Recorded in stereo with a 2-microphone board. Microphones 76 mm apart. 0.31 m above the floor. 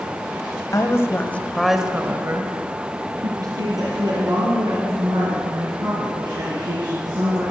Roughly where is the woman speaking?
Left.